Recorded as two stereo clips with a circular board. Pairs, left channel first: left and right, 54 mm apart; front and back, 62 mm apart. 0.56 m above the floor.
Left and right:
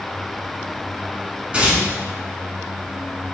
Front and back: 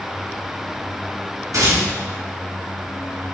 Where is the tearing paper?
155° right, 3 m.